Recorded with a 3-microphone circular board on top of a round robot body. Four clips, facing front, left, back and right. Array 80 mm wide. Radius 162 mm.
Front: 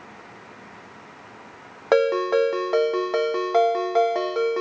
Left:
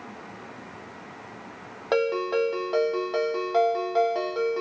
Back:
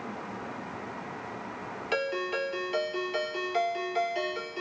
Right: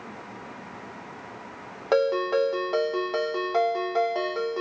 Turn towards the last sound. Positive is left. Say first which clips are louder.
# right 2 dB, front 12 dB
turn(degrees=-5)